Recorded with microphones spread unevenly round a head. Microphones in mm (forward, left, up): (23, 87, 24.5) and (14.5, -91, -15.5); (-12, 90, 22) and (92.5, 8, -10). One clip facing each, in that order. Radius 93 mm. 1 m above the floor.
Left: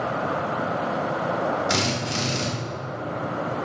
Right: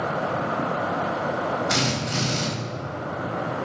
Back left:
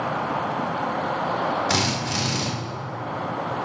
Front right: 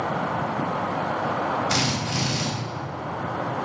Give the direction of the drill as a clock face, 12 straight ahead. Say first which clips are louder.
Even, back left 1 dB; 7 o'clock.